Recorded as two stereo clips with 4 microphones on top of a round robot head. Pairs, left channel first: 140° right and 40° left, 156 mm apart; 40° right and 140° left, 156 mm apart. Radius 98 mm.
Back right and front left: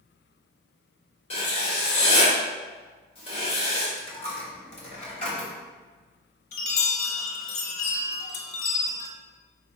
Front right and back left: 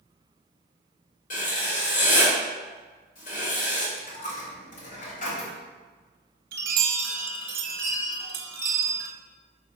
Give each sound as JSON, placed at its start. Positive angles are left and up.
{"t": 1.3, "sound": "writing", "azimuth_deg": -85, "distance_m": 1.6}
{"t": 4.0, "sound": "a dropped coin", "azimuth_deg": -85, "distance_m": 1.3}
{"t": 6.5, "sound": "a chime", "azimuth_deg": 170, "distance_m": 0.7}